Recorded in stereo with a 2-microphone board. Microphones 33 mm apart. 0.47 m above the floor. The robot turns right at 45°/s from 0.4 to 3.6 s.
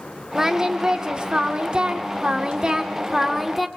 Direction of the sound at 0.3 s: 155° right.